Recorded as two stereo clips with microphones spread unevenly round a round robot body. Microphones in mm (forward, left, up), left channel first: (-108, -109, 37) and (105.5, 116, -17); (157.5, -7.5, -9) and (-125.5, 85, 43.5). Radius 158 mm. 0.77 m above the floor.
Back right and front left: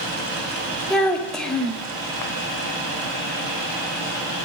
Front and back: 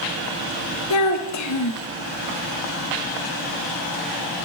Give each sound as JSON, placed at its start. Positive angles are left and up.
{"t": 0.9, "sound": "a child speaking", "azimuth_deg": -40, "distance_m": 1.4}